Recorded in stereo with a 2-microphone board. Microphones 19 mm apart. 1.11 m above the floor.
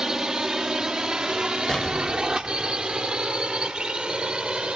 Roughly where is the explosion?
Left.